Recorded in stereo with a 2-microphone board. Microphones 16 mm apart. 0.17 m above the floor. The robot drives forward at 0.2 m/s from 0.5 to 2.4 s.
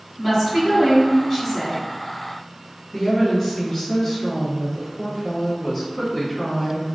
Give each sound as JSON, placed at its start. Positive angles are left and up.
{"t": 0.2, "sound": "a woman speaking", "side_deg": -20, "distance_m": 1.4}
{"t": 2.9, "sound": "a woman speaking", "side_deg": 20, "distance_m": 1.7}